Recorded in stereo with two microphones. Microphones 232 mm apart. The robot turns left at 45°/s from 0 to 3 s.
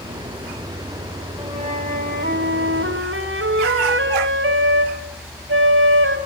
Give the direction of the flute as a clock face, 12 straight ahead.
1 o'clock.